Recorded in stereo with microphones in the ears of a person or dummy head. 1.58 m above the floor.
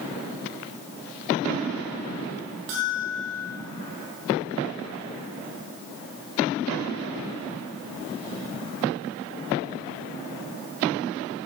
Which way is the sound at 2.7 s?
50° right (ahead or behind).